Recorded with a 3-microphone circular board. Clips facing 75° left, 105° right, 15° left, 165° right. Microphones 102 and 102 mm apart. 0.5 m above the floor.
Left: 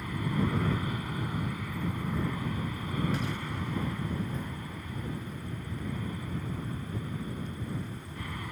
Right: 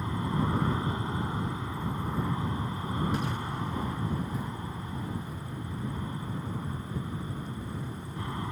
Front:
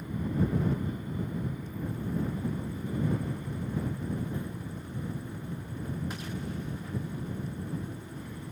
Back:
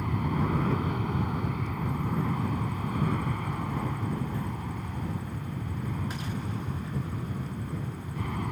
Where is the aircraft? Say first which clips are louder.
Right 1 dB, back 2 dB; 165° right.